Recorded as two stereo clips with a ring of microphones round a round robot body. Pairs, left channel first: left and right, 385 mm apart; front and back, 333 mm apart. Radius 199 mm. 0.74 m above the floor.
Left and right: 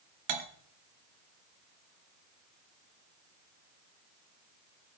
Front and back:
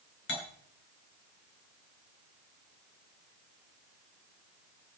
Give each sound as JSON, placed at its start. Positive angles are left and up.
{"t": 0.3, "sound": "cutlery clinking", "azimuth_deg": -65, "distance_m": 1.5}